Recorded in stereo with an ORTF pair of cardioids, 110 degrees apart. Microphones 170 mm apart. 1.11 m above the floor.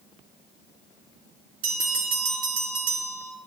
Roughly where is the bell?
Ahead right.